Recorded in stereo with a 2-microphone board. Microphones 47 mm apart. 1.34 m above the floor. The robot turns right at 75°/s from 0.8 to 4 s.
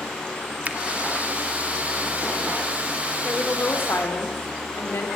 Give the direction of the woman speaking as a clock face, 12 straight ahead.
12 o'clock.